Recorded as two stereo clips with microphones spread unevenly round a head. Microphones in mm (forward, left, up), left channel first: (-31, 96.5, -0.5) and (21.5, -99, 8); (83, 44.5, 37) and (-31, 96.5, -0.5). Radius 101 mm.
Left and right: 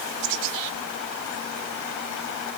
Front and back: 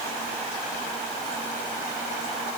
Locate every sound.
Only background noise.